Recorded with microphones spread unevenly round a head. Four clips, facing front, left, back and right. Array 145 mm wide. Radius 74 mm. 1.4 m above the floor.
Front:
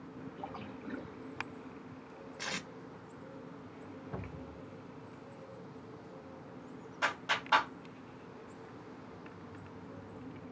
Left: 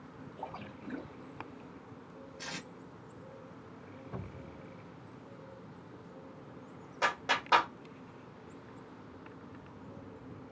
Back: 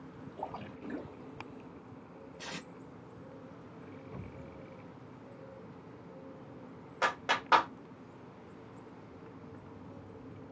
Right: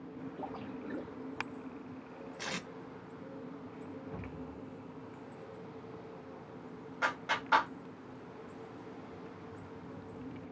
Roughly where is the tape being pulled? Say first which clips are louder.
Right 3 dB, front 3 dB; ahead right.